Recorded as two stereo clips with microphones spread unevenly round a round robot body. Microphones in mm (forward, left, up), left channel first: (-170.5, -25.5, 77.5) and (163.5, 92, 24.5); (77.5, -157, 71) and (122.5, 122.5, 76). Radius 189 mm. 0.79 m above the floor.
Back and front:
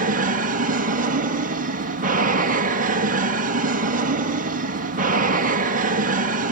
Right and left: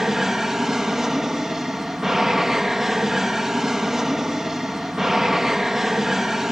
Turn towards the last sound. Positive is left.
turn(degrees=-10)